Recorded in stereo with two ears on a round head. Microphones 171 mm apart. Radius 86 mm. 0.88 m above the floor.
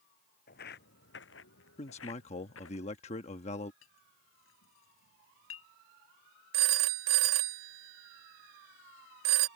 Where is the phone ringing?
65° right (ahead or behind).